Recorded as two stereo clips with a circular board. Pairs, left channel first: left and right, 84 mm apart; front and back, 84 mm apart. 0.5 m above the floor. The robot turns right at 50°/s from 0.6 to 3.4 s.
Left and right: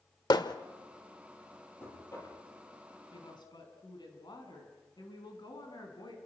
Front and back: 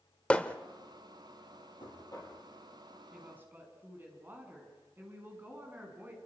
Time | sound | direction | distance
0.3 | hammering | 75° left | 1.1 m
1.8 | knocking | 30° left | 8 m
3.1 | a woman speaking | 100° left | 5.5 m